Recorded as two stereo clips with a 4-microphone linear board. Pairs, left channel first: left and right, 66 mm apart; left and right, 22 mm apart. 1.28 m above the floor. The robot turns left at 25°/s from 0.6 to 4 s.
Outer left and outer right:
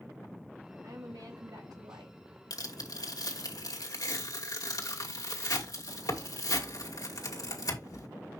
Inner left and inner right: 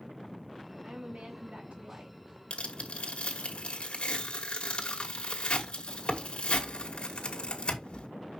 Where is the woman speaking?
65° right, 3.5 m; by 2.2 s 100° right, 3.5 m.